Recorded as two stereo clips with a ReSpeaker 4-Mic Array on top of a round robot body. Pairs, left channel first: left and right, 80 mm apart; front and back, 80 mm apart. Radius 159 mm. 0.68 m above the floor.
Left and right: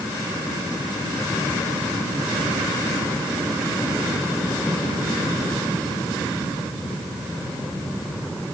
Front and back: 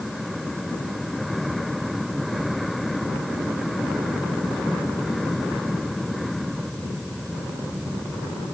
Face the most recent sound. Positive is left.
No sound to turn to.